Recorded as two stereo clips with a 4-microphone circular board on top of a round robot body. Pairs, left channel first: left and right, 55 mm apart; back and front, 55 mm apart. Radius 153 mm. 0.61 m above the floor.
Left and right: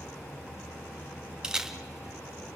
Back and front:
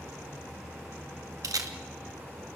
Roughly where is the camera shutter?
Ahead.